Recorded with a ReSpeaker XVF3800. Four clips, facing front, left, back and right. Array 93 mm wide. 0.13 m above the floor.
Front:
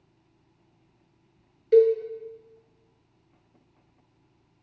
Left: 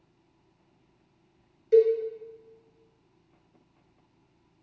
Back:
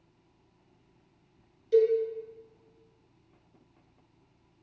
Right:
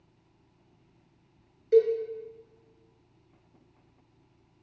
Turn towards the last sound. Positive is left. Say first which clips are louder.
# left 2 dB, front 5 dB
turn(degrees=10)